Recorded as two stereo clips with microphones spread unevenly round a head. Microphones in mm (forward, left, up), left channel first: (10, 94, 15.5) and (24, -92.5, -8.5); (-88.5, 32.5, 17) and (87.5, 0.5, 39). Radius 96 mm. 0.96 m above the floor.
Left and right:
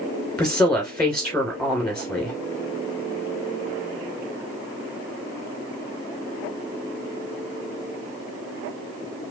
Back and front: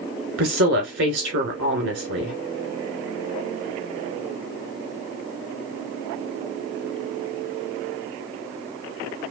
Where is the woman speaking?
10° left, 3 m.